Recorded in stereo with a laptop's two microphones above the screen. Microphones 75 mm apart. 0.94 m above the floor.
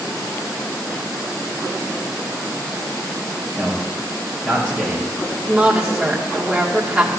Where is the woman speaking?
10° right (ahead or behind), 2 m.